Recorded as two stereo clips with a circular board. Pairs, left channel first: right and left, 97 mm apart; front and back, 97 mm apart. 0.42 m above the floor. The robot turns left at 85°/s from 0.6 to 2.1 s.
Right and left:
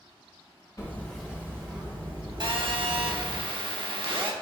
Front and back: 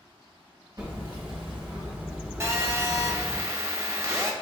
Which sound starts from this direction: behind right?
Hammering, at 0.8 s.